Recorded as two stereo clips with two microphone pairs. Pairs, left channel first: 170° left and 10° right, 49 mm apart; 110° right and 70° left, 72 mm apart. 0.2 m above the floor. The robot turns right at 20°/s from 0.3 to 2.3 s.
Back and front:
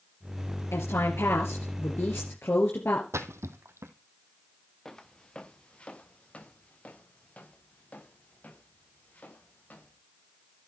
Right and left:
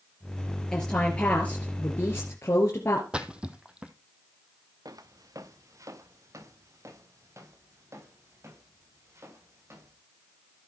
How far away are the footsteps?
About 1.5 m.